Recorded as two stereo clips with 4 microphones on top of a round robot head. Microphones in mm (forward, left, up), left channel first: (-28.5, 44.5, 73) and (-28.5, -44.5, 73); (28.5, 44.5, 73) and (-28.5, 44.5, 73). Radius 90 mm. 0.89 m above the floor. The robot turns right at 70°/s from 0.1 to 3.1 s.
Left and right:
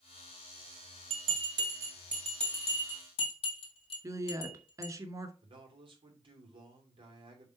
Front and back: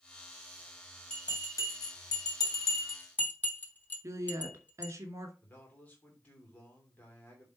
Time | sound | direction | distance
1.1 | a bell | 80° right | 2.5 m
4.0 | a woman speaking | 140° right | 2.5 m
5.4 | a man speaking | 65° right | 3 m